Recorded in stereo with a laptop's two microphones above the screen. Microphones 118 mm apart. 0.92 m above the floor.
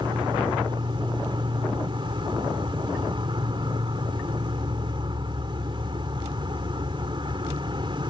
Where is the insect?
45° right (ahead or behind).